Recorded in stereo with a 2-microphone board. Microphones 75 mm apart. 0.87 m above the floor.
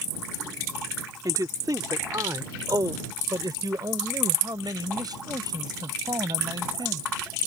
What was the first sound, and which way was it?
A man speaking, 60° right (ahead or behind).